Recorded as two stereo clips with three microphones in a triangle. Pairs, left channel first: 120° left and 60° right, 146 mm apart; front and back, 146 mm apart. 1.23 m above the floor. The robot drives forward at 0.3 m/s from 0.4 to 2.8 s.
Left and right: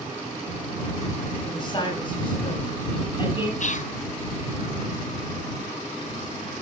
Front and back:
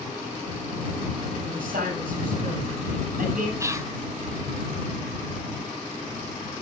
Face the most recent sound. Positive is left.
turn(degrees=115)